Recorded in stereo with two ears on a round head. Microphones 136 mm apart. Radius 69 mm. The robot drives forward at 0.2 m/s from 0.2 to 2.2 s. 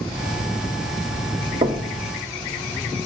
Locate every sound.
1.6 s knocking: 35° right (ahead or behind), 0.7 m; by 1.9 s 30° right (ahead or behind), 0.7 m